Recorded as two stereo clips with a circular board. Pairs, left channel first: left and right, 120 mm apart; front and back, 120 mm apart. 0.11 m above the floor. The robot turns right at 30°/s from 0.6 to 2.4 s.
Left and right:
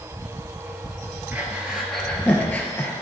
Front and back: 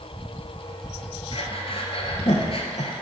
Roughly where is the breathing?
Ahead.